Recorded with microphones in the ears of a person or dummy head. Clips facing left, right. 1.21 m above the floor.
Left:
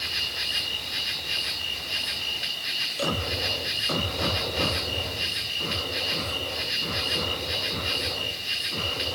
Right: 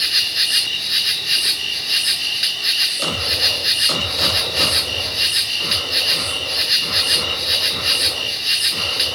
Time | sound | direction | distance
0.0 | an insect | 65° right (ahead or behind) | 1.5 m